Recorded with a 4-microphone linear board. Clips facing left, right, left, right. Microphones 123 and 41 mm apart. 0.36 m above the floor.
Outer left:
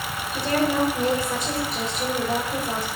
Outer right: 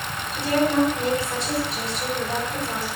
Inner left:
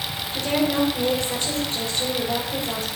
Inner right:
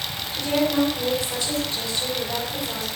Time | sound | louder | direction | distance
0.3 | a woman speaking | outer right 2 dB, even | 45° left (ahead or behind) | 6.5 m